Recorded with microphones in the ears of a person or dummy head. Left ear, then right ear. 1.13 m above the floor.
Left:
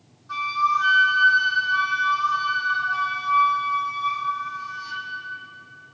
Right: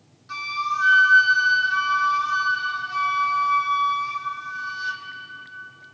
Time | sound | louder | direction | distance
0.3 | a flute | left 4 dB | 65° right (ahead or behind) | 1.8 m